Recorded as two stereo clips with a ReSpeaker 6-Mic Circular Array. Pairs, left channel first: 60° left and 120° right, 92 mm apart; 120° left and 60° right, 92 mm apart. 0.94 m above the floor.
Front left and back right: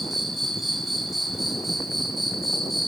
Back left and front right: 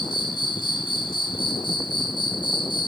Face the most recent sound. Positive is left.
turn(degrees=150)